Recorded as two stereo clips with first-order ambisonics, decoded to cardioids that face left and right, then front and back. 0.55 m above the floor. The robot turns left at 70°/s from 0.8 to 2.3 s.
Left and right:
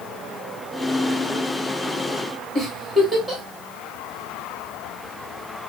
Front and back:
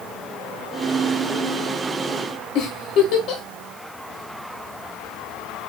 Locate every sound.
2.5 s a giggle: 5° left, 1.5 m